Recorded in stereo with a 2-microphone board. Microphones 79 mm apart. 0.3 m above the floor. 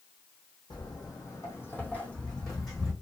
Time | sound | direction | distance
0.7 | footsteps | 65° left (ahead or behind) | 0.9 m